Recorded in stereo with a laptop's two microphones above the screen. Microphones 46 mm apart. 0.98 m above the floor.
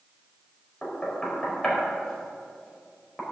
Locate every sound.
0.8 s knocking: 10° left (ahead or behind), 4.5 m